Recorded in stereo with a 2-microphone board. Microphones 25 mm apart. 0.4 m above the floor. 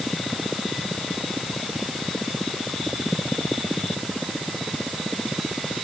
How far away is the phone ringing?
I don't hear a phone ringing.